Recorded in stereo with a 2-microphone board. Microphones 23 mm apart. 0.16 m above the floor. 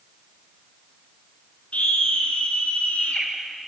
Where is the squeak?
No squeak in this recording.